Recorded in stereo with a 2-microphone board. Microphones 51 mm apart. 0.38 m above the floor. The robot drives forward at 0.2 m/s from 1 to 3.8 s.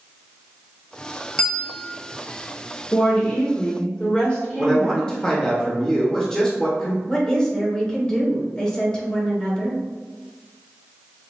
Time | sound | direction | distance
1.4 | a bell | 15° left (ahead or behind) | 0.6 m
2.9 | a woman speaking | 25° left (ahead or behind) | 0.9 m
4.6 | a man speaking | 20° left (ahead or behind) | 0.8 m
7.1 | a woman speaking | 15° left (ahead or behind) | 0.8 m